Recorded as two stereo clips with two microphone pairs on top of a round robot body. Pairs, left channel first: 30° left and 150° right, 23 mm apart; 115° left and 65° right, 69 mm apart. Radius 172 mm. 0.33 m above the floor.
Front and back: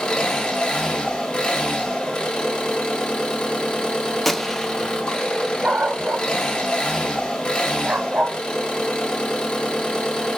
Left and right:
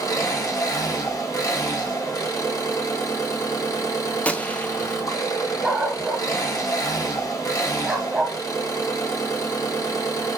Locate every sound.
0.0 s an engine running: 75° left, 2 m
4.2 s a gunshot: 85° left, 0.8 m
5.6 s a dog barking: 145° right, 1.1 m